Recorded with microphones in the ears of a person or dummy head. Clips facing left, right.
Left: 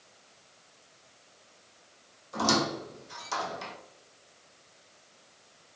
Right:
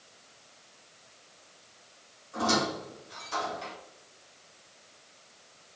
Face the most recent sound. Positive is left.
turn(degrees=70)  # may be behind; listen again after turning